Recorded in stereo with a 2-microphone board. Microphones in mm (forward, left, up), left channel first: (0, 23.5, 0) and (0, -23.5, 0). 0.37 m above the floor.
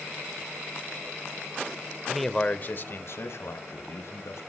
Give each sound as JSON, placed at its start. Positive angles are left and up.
{"t": 2.1, "sound": "a man speaking", "side_deg": -10, "distance_m": 0.9}